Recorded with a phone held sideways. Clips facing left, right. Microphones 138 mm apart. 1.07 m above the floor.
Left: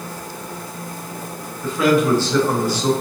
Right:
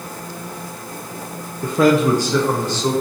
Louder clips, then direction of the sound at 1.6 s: Right 2 dB; 60° right (ahead or behind).